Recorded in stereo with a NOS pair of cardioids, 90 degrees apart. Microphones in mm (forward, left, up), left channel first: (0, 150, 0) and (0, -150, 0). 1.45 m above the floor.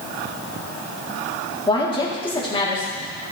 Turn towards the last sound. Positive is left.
turn(degrees=15)